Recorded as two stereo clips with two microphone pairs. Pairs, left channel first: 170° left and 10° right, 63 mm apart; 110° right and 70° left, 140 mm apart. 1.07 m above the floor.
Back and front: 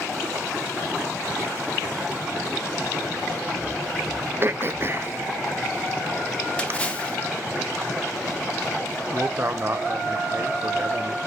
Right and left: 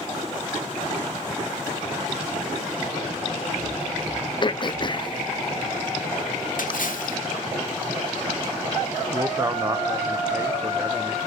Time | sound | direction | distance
4.4 | throat clearing | 55° right | 0.6 m
6.6 | a splash | 120° right | 1.4 m
9.1 | a man speaking | 15° left | 0.7 m